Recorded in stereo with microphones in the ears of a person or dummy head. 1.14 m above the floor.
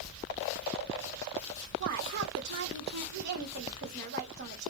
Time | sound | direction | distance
1.8 | a woman speaking | 50° right (ahead or behind) | 1.8 m